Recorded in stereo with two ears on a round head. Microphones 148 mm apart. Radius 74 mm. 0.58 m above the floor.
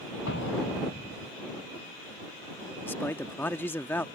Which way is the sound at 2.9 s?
15° left (ahead or behind).